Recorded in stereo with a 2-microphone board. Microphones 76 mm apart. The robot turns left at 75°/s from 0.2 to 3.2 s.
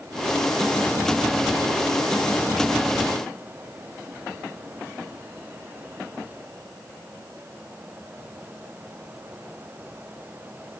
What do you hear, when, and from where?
Only background noise.